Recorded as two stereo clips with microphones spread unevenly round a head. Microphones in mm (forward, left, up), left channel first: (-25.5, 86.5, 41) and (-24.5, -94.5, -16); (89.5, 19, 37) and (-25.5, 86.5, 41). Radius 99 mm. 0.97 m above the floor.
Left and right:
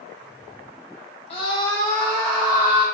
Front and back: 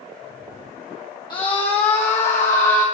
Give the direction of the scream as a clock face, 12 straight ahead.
11 o'clock.